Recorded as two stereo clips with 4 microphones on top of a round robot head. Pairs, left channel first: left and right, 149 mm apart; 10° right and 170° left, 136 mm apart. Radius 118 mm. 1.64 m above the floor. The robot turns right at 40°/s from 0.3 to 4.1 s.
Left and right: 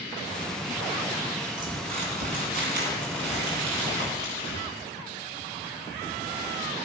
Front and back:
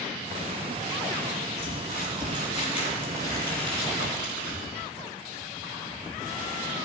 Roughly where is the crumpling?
Behind right.